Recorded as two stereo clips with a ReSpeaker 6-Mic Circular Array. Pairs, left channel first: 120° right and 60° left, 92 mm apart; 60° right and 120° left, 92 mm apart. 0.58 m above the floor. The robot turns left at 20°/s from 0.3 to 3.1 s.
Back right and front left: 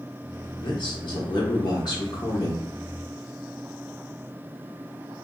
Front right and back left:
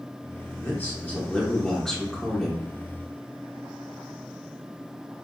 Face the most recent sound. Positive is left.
turn(degrees=-170)